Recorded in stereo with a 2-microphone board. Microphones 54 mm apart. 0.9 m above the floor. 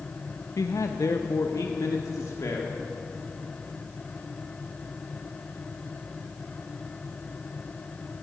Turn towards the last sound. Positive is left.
turn(degrees=70)  # may be behind; listen again after turning